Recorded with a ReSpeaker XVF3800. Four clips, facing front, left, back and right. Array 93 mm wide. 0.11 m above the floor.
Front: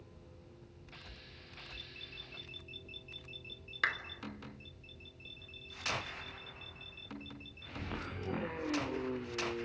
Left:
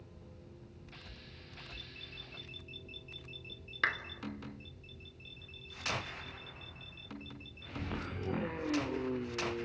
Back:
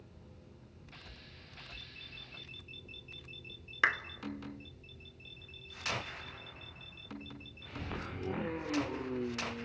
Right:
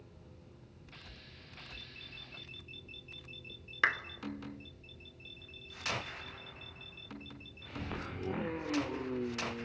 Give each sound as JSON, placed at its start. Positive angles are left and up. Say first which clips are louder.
{"t": 3.8, "sound": "a clap", "louder": "right 3 dB, back 4 dB", "azimuth_deg": -145, "distance_m": 1.1}